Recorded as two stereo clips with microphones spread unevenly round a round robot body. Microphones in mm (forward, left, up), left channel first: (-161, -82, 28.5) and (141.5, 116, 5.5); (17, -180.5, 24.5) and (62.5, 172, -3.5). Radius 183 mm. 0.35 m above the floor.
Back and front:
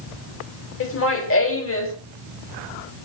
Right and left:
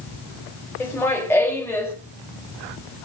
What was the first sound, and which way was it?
Laughter, 175° left.